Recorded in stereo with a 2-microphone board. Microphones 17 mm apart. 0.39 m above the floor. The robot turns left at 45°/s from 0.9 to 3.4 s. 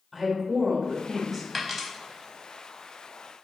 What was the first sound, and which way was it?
A woman speaking, 10° right (ahead or behind).